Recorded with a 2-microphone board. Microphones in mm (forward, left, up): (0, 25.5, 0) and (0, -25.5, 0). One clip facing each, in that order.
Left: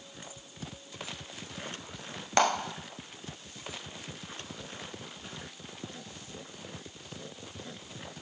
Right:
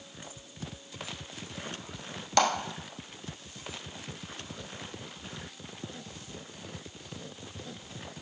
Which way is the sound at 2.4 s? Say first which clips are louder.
Even; 25° left (ahead or behind).